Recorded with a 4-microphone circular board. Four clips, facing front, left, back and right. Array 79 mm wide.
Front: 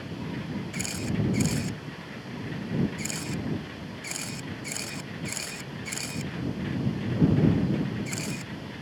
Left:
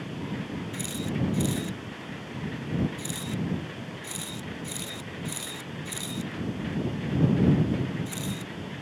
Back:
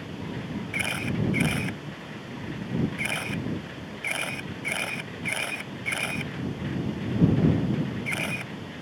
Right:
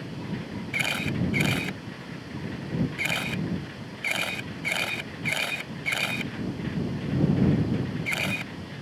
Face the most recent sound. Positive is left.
turn(degrees=-125)